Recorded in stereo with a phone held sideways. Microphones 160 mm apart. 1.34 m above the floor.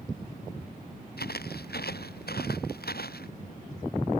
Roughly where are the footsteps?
Left.